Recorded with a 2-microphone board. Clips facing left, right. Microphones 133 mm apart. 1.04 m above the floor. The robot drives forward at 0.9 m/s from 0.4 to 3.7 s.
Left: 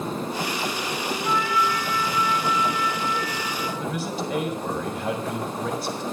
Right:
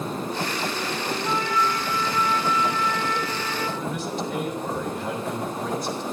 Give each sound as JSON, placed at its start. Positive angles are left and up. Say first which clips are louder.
{"t": 1.2, "sound": "a trumpet", "louder": "left 1 dB", "side_deg": -30, "distance_m": 4.0}
{"t": 3.8, "sound": "a man speaking", "louder": "even", "side_deg": 5, "distance_m": 4.0}